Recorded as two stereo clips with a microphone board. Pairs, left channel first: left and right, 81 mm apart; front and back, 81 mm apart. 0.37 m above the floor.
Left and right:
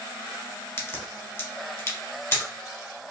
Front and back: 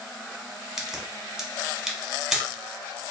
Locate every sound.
0.8 s a crack: 100° left, 1.0 m